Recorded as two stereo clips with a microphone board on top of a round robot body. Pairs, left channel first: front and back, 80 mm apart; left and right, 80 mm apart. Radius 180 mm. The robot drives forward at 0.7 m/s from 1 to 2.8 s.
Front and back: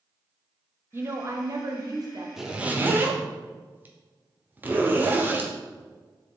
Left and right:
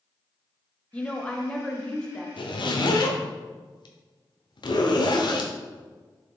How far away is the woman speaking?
About 1.2 m.